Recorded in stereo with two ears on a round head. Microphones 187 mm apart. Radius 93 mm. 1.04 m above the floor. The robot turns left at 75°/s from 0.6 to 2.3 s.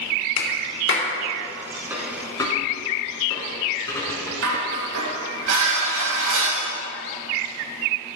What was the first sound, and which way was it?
A clap, 75° left (ahead or behind).